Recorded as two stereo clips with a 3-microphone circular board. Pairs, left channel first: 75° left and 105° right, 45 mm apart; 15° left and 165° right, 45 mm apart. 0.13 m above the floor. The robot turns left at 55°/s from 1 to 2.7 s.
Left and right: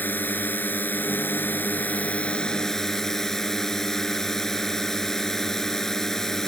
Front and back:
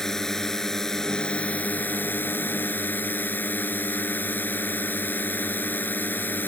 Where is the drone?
90° left; by 6.5 s 5° right.